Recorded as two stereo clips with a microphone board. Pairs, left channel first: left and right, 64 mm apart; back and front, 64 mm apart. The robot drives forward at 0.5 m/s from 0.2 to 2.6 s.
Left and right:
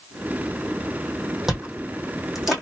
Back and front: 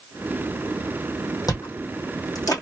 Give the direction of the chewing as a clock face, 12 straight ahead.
6 o'clock.